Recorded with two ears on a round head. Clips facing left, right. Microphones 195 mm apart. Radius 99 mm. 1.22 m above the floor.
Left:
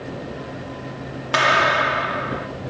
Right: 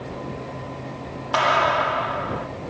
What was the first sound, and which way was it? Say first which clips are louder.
A clap: even; 25° left (ahead or behind).